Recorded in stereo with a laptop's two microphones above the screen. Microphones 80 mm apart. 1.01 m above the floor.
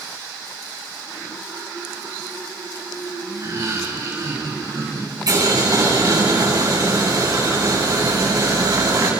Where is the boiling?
50° right (ahead or behind), 10 m.